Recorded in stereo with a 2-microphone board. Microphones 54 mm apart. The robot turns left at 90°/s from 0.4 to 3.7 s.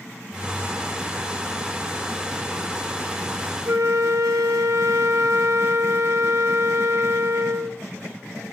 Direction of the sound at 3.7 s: 75° right (ahead or behind).